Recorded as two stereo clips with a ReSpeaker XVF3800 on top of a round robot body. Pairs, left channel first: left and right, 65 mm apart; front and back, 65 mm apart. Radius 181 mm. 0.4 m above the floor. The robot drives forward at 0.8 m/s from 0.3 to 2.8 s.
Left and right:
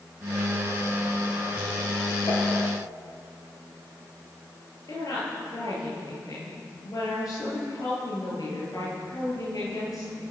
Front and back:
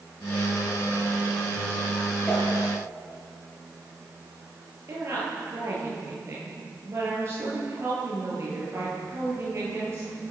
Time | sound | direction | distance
2.3 | a whoosh | 75° left | 7.5 m
4.9 | a woman speaking | 125° left | 9 m